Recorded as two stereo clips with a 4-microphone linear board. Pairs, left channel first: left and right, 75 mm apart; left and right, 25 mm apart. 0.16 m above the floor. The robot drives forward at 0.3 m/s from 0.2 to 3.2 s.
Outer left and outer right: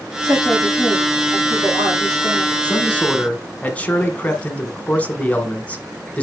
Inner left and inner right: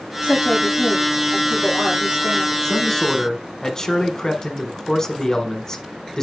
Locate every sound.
0.2 s a woman speaking: 55° right (ahead or behind), 5 m; by 2.5 s 60° right (ahead or behind), 5 m
2.6 s a man speaking: 20° left (ahead or behind), 1.4 m